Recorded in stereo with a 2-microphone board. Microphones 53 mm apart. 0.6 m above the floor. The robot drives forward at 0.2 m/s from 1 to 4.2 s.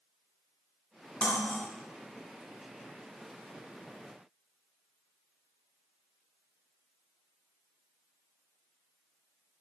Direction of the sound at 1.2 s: 25° left (ahead or behind).